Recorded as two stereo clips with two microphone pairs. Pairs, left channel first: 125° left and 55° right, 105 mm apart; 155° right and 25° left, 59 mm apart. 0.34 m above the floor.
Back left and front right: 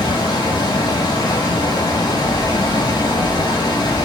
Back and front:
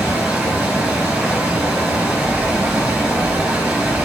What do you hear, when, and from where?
0.0 s running water: 90° left, 1.7 m